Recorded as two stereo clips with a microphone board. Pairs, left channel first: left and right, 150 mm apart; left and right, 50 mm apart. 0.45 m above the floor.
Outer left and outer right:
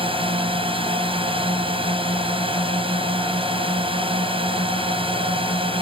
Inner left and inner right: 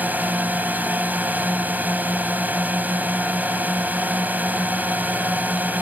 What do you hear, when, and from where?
0.0 s a drone: 35° right (ahead or behind)